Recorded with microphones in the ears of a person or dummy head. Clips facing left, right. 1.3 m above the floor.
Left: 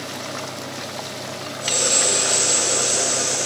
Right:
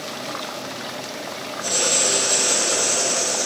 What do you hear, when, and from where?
1.6 s writing: 5° left (ahead or behind), 4 m